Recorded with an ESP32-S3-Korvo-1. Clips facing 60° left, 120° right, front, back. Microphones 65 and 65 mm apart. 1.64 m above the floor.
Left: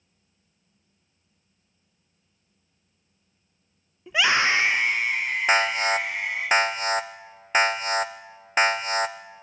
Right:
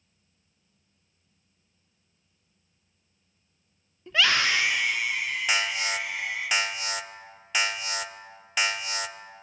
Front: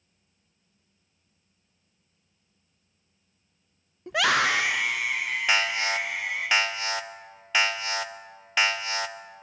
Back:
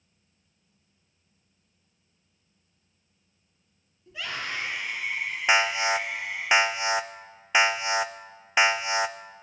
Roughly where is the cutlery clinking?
No cutlery clinking in this recording.